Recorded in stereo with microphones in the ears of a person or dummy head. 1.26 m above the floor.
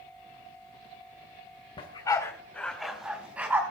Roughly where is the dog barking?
Left.